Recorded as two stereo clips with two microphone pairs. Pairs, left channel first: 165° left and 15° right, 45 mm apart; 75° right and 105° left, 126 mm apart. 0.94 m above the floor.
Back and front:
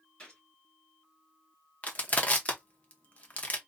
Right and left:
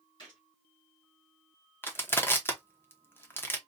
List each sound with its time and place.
0.2 s a gunshot: 125° right, 2.5 m
1.8 s crushing: 145° right, 0.7 m